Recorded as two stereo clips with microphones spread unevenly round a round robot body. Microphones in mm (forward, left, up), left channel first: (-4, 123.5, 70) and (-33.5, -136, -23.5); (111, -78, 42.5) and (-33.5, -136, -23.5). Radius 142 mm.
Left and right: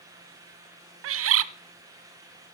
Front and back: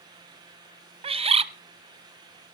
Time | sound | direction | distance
1.0 | a bird | 115° right | 0.8 m